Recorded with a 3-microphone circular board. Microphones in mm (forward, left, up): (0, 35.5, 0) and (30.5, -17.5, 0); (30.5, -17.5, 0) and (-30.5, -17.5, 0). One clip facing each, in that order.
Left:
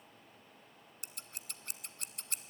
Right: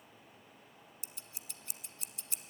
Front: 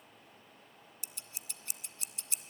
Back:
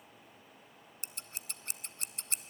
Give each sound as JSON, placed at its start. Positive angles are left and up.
{"t": 1.0, "sound": "scissors", "azimuth_deg": 140, "distance_m": 0.5}